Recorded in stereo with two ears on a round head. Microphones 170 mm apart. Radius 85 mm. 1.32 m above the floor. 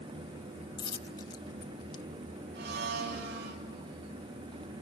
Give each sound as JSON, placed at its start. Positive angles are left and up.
{"t": 0.8, "sound": "a dropped coin", "side_deg": 20, "distance_m": 0.7}
{"t": 2.5, "sound": "a blender", "side_deg": -55, "distance_m": 3.0}